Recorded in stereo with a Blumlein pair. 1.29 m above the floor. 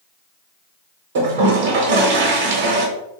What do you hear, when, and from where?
1.1 s a toilet flushing: 60° right, 0.9 m